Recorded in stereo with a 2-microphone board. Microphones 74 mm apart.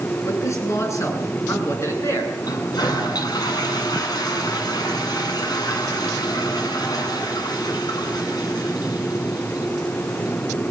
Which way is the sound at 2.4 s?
65° left (ahead or behind).